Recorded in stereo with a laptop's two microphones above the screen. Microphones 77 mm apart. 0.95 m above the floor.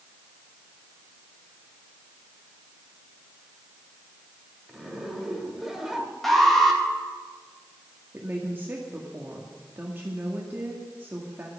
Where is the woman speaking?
25° right (ahead or behind), 1.9 m.